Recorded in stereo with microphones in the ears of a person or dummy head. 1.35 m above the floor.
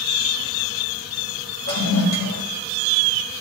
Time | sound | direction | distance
1.7 | a toilet flushing | 75° left (ahead or behind) | 1.6 m